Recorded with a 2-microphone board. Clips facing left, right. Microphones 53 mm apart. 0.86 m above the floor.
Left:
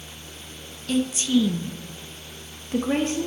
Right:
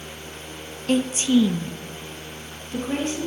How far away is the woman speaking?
About 0.6 m.